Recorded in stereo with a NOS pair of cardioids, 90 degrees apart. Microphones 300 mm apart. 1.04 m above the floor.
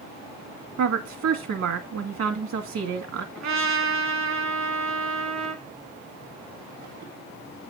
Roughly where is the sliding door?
No sliding door in this recording.